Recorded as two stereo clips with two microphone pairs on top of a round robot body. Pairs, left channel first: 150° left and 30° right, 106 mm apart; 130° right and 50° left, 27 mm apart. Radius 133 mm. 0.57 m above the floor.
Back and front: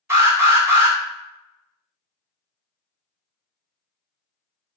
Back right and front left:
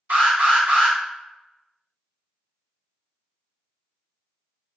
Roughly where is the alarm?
Ahead left.